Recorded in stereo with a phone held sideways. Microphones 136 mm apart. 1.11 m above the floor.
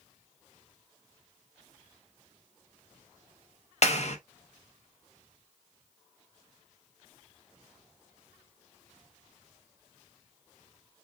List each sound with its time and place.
3.8 s a clap: 55° left (ahead or behind), 0.9 m